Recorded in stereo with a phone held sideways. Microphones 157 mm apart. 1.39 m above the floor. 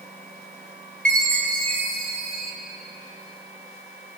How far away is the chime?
About 1.6 m.